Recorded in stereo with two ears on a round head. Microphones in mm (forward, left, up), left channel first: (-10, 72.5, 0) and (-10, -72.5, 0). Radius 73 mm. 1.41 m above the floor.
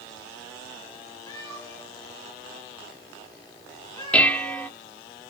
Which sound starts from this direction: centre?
Dishes clattering, at 4.1 s.